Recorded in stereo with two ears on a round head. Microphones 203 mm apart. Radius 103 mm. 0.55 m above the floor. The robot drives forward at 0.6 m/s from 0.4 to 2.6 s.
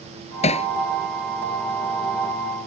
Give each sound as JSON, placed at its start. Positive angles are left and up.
{"t": 0.4, "sound": "hammering", "side_deg": 30}